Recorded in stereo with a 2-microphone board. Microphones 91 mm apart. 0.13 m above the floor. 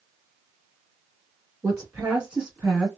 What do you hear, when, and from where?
1.6 s a woman speaking: 25° right (ahead or behind), 1.6 m; by 2.9 s centre (ahead or behind), 1.5 m